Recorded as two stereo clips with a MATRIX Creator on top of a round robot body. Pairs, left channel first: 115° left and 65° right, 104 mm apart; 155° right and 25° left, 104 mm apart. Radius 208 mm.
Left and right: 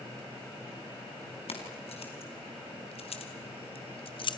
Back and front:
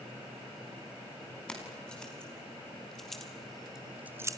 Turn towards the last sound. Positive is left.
turn(degrees=70)